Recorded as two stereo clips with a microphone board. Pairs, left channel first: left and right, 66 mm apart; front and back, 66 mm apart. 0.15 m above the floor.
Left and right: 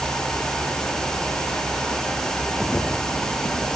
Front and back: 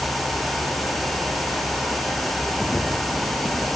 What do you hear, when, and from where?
Only background noise.